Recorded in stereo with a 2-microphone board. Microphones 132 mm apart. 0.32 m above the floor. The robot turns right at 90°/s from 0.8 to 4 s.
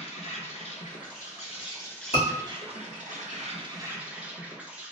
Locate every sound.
0.0 s an insect: 60° left, 0.9 m; by 4.9 s 10° right, 0.9 m
2.1 s a scream: 55° left (ahead or behind), 1.7 m; by 2.3 s 50° left (ahead or behind), 1.7 m